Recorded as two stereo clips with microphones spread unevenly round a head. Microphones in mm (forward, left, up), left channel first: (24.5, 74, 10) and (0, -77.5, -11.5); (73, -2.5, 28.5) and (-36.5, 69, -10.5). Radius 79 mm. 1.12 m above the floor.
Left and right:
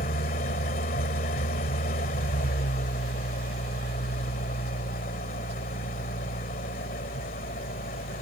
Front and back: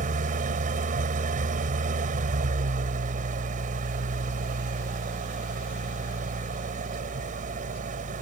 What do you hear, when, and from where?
0.0 s an engine running: 120° left